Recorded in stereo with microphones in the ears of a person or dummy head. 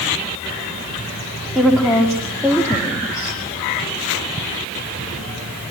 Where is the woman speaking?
Centre (ahead or behind), 2.5 m; by 3.4 s 20° left (ahead or behind), 1.3 m.